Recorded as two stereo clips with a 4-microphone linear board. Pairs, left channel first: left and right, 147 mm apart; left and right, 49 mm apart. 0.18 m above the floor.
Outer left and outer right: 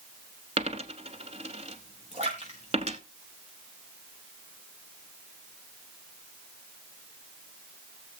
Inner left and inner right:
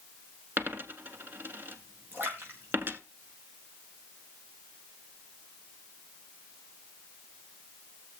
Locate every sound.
0.6 s a dropped coin: 45° right (ahead or behind), 1.1 m
2.1 s a splash: 45° right (ahead or behind), 4.5 m